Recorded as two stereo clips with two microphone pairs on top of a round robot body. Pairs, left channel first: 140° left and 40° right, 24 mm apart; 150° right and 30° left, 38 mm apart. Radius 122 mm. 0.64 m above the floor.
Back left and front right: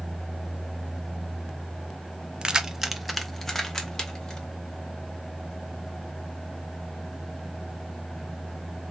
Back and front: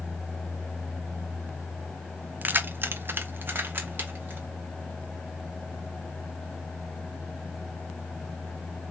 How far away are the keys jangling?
About 0.6 m.